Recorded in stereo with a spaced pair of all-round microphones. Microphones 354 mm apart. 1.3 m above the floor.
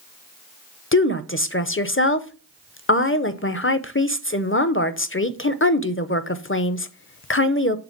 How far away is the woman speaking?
About 0.6 m.